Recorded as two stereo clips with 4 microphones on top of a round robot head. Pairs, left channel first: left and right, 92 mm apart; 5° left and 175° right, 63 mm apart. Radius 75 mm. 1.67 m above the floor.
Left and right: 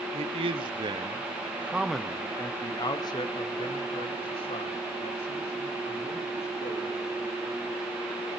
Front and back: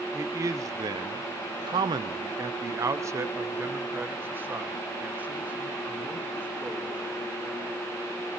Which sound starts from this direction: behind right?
A man speaking, at 0.1 s.